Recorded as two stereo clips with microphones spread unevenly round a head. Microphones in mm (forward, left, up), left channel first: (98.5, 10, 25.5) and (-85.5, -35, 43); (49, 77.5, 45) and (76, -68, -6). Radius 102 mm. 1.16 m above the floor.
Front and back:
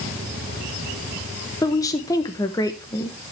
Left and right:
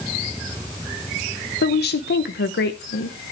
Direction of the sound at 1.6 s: 85° left.